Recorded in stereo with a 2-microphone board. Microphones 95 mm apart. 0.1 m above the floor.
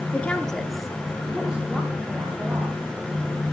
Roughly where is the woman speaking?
Centre.